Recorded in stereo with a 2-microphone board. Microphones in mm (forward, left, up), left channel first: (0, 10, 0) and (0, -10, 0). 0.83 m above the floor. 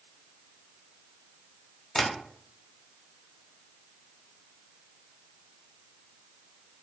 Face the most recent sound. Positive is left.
turn(degrees=40)  # may be behind; listen again after turning